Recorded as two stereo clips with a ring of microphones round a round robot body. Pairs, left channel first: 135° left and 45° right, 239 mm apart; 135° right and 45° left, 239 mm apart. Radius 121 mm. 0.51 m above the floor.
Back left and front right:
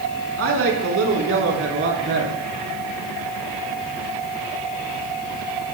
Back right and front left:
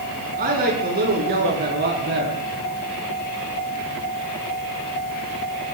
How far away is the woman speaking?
About 7 m.